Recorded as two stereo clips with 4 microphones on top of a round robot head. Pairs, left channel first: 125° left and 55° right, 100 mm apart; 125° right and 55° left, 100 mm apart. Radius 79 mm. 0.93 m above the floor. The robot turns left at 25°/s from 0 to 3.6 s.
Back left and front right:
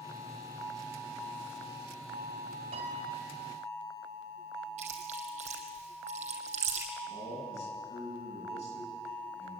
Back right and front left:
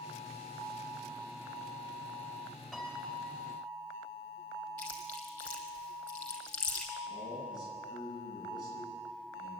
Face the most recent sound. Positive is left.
turn(degrees=105)